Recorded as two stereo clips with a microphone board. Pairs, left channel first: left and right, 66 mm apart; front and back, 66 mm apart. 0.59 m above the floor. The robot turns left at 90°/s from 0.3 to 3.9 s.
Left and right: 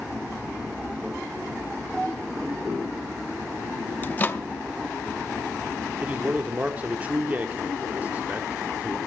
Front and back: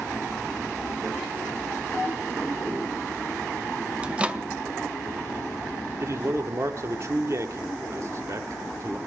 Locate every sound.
4.0 s a microwave: 125° left, 0.6 m
6.0 s a man speaking: 150° right, 1.0 m